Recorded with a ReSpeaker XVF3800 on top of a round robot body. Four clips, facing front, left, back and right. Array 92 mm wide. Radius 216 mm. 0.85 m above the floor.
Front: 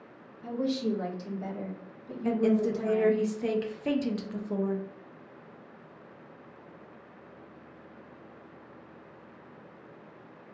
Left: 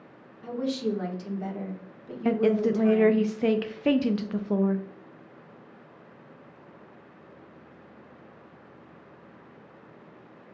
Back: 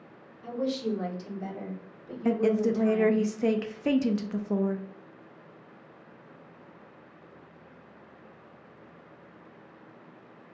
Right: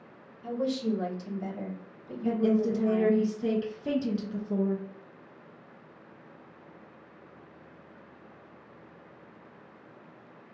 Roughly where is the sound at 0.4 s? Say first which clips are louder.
Left 1 dB, even; left.